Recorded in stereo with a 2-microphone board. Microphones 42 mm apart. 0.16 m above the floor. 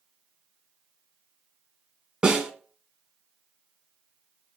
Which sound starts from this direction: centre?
A snare drum, at 2.2 s.